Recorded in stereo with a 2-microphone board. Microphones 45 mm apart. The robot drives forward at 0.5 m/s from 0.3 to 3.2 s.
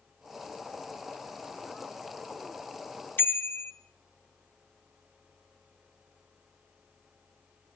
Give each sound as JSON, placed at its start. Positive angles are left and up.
{"t": 3.2, "sound": "a bicycle bell", "side_deg": 50, "distance_m": 2.0}